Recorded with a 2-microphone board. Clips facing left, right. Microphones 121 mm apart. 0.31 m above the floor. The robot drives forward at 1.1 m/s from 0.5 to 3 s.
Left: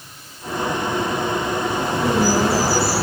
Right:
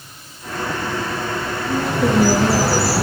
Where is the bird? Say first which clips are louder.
Right 5 dB; 70° right (ahead or behind), 7.5 m; by 3.0 s 75° right (ahead or behind), 7 m.